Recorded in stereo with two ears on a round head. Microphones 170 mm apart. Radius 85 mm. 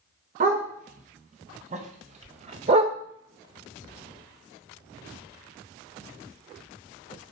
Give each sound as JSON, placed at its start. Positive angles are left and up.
{"t": 0.4, "sound": "a dog barking", "side_deg": -40, "distance_m": 3.5}